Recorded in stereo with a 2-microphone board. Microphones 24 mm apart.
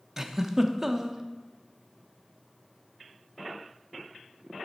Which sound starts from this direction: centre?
A giggle, at 0.2 s.